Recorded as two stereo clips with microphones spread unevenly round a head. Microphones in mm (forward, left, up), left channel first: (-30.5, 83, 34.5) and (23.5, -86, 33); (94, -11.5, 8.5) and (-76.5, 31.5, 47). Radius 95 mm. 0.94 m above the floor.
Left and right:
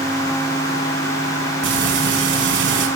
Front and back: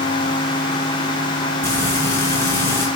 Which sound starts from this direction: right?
Frying, at 1.6 s.